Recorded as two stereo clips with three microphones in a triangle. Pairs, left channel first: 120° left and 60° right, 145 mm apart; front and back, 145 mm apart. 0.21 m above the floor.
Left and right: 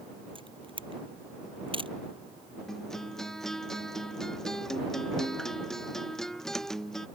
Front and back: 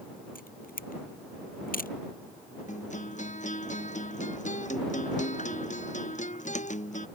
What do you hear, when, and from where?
0.3 s a camera shutter: 5° right
2.7 s a guitar: 35° left